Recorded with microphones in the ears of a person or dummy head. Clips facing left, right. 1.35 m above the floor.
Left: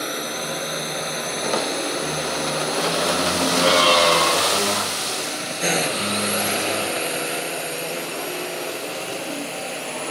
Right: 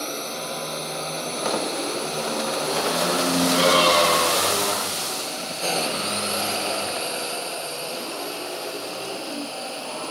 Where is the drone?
15° left (ahead or behind); by 10.1 s 20° left (ahead or behind).